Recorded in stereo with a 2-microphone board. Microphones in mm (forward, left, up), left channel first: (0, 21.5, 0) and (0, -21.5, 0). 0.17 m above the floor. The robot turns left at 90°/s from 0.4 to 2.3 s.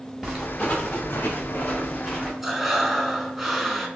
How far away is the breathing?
About 0.6 m.